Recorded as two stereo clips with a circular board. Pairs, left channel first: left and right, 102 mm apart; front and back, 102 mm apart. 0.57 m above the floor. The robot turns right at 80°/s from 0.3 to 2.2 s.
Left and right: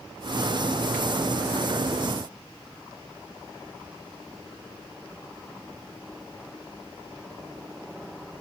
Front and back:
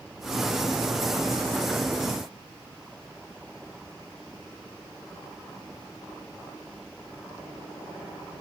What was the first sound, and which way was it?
Only background noise.